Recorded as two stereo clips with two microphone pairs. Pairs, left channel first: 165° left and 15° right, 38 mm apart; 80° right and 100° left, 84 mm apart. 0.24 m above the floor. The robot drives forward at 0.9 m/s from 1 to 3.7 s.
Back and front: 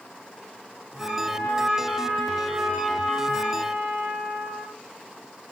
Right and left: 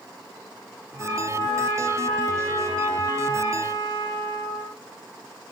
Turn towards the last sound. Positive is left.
turn(degrees=-140)